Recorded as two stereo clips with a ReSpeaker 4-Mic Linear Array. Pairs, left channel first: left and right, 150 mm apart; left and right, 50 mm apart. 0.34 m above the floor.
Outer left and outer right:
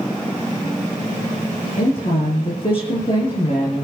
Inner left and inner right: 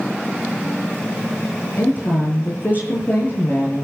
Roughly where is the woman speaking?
Left.